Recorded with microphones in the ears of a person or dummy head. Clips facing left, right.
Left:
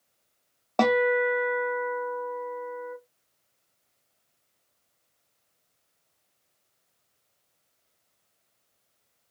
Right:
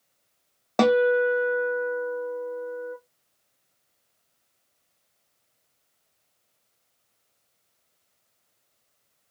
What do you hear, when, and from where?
0.8 s a guitar: 20° right (ahead or behind), 0.6 m